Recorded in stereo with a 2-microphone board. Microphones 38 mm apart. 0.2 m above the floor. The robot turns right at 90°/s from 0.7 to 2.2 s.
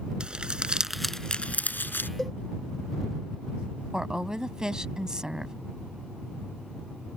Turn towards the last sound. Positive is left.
turn(degrees=-20)  # may be behind; listen again after turning